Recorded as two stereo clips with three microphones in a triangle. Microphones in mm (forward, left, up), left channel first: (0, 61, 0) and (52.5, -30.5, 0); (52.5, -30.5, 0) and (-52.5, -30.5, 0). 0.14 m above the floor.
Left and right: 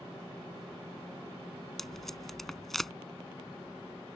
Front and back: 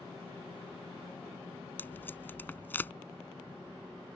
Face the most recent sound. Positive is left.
turn(degrees=35)